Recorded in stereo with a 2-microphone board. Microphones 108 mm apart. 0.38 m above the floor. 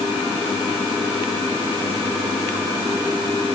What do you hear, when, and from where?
Only background noise.